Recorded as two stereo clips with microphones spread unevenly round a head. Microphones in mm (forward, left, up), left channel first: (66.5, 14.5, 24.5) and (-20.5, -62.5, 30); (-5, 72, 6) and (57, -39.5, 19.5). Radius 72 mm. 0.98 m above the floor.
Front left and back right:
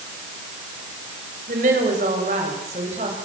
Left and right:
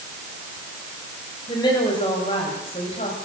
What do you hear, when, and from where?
1.5 s a woman speaking: 175° right, 5 m; by 3.1 s 170° left, 5.5 m